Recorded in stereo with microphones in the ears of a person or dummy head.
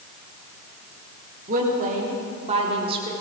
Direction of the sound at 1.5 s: 45° right (ahead or behind).